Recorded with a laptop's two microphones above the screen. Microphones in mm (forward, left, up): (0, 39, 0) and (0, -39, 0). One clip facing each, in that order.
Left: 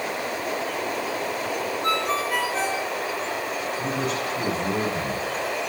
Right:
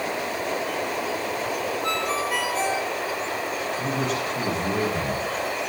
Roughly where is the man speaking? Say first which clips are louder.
Right 1 dB; right.